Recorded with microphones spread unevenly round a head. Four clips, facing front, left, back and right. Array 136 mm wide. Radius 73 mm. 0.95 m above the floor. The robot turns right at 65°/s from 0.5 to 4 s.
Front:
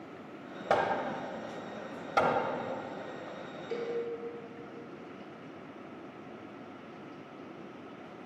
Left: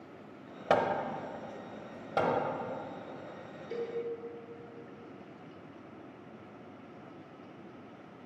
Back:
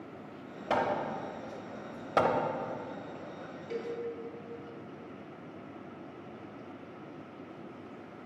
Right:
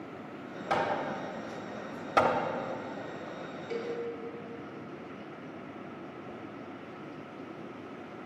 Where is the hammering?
100° left, 0.9 m; by 2.4 s 150° right, 0.9 m.